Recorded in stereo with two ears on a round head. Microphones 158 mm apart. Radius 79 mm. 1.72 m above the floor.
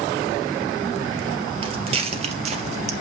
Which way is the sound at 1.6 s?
30° right (ahead or behind).